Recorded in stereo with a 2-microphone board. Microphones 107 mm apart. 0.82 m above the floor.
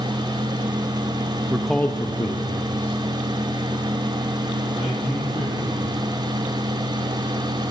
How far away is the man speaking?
About 0.7 m.